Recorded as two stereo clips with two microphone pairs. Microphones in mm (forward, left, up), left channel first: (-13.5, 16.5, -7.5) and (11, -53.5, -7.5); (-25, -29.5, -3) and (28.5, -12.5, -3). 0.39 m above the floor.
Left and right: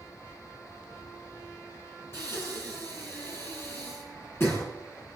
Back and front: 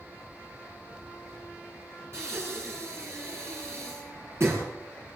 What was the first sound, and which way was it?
Breathing, 55° left.